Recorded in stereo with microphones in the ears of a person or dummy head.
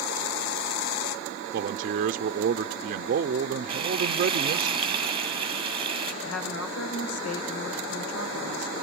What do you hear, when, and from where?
1.5 s a man speaking: 55° right (ahead or behind), 0.6 m
3.7 s frying: 25° right (ahead or behind), 1.5 m
6.2 s a woman speaking: 80° left, 1.9 m